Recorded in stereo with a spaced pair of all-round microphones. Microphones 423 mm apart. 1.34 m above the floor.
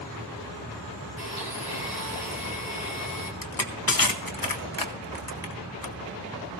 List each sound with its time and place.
1.2 s a blender: 65° right (ahead or behind), 2.5 m
3.4 s crushing: 55° left (ahead or behind), 1.0 m